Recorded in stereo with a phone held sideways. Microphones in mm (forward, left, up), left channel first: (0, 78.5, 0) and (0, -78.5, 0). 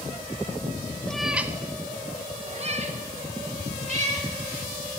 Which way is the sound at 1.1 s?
5° left (ahead or behind).